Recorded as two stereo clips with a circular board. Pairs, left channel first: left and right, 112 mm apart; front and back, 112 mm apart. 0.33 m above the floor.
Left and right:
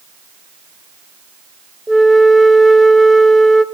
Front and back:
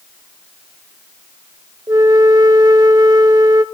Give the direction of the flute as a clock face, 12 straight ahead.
6 o'clock.